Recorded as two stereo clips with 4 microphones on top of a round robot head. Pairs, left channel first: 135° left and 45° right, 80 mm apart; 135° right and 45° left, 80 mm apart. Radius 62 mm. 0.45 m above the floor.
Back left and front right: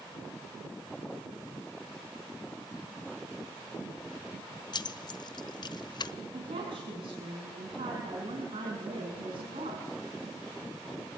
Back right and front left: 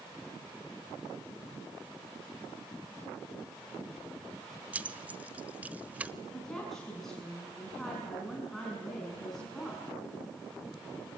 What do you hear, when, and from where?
4.7 s keys jangling: 115° left, 1.1 m
6.3 s a woman speaking: 50° right, 5.5 m